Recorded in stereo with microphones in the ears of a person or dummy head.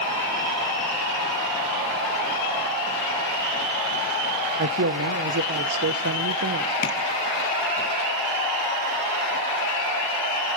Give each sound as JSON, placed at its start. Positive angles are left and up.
{"t": 4.6, "sound": "a man speaking", "side_deg": -65, "distance_m": 0.9}
{"t": 6.8, "sound": "tapping", "side_deg": 50, "distance_m": 2.0}